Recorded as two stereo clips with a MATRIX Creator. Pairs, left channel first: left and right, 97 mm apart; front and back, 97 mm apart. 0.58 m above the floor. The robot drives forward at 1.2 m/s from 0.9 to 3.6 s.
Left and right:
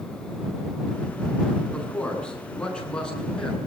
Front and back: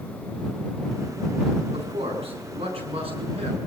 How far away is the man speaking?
About 7 m.